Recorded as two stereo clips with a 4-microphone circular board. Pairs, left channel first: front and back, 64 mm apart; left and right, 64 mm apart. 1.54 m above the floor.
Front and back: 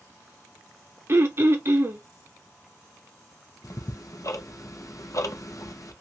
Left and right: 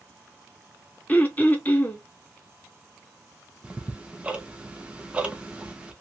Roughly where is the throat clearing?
Behind left.